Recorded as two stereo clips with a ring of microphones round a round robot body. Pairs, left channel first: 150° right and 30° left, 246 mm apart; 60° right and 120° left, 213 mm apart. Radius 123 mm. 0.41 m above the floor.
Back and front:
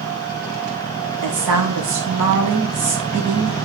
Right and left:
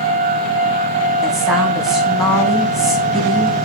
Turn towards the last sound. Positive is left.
turn(degrees=30)